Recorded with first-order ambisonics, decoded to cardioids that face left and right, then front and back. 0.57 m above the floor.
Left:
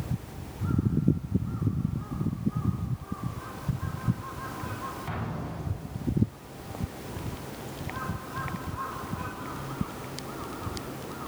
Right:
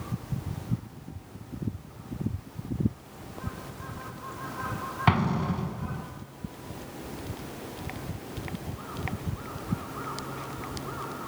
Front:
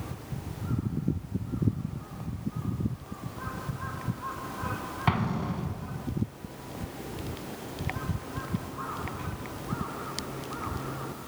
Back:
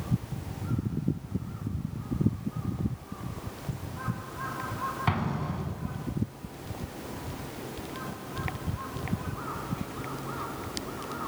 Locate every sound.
5.1 s an explosion: 85° right, 0.8 m